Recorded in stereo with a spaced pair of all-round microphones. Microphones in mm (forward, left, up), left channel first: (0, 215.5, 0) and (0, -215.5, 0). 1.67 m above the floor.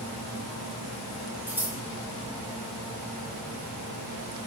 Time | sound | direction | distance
1.5 | scissors | 5° right (ahead or behind) | 4 m